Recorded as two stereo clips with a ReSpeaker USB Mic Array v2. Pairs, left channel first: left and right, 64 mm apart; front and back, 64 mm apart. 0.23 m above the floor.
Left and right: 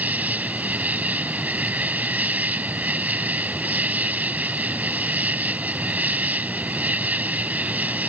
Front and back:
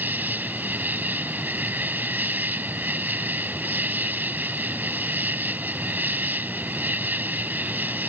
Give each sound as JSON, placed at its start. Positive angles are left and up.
{"t": 0.0, "sound": "an insect", "azimuth_deg": -140}